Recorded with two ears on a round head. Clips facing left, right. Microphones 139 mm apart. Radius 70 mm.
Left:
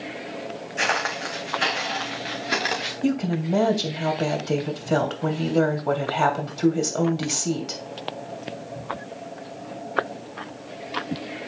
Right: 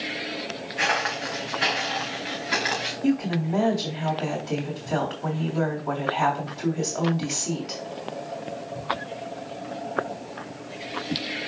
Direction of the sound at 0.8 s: 50° left (ahead or behind).